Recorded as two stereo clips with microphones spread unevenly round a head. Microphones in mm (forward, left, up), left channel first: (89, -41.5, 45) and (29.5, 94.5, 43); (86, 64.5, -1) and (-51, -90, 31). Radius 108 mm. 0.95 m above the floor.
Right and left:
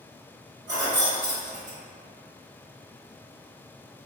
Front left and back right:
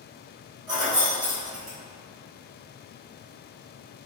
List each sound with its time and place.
0.7 s keys jangling: 160° left, 1.6 m